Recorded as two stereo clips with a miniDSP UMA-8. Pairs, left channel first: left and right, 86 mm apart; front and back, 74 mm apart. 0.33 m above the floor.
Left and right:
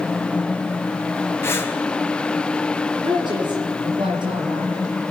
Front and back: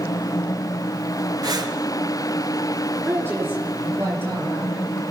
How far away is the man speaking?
About 6.5 m.